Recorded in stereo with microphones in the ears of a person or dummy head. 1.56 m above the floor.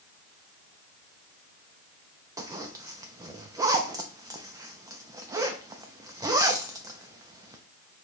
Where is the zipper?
25° right (ahead or behind), 0.6 m.